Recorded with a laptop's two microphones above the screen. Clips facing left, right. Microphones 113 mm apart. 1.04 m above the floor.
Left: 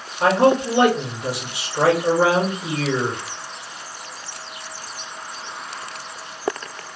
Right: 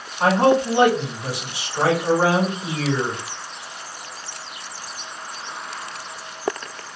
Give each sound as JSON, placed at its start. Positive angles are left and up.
{"t": 0.2, "sound": "a man speaking", "side_deg": -35, "distance_m": 1.4}